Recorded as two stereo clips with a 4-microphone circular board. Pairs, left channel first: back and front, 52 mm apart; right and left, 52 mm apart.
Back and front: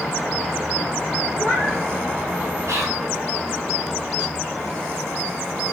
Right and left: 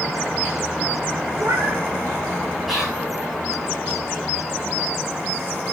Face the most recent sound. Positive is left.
turn(degrees=5)